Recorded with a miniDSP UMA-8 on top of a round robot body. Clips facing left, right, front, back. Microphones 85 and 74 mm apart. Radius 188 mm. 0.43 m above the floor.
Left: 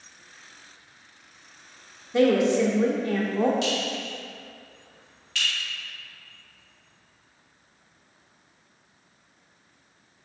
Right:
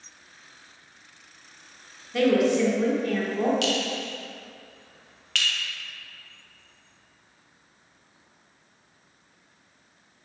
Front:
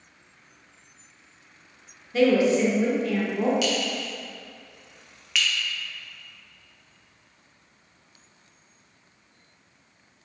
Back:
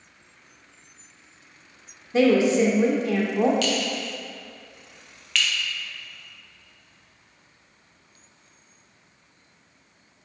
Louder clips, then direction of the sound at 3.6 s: Right 1 dB, back 1 dB; 80° right.